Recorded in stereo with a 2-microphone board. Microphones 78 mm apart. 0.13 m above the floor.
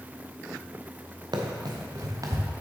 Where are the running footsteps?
65° right (ahead or behind), 1.4 m; by 2.5 s 40° right (ahead or behind), 1.4 m.